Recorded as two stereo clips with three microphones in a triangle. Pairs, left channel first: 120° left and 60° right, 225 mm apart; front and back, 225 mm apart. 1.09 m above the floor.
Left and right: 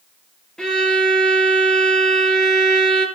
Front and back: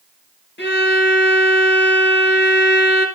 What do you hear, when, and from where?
0.6 s a violin: 35° left, 3 m